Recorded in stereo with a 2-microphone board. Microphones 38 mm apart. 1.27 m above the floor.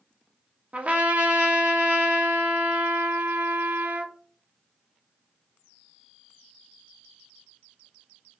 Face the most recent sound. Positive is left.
turn(degrees=-40)  # may be behind; listen again after turning